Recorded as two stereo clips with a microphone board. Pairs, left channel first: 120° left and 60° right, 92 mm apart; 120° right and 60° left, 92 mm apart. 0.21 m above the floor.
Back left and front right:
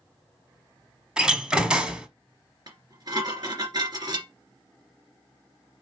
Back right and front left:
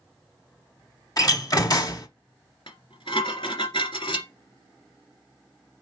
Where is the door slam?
135° right, 1.0 m.